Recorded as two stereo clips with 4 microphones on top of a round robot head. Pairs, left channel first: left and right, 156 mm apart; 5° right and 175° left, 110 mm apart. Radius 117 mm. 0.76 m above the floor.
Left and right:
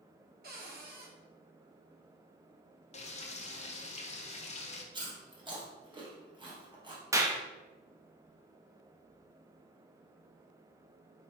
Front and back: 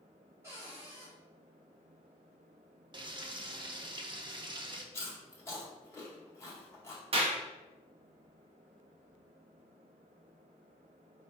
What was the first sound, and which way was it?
A cupboard door, 110° right.